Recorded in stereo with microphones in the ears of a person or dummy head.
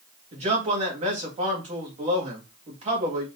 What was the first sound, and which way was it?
A man speaking, 35° right (ahead or behind).